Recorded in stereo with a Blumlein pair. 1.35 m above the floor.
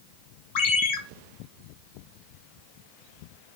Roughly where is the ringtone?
Ahead left.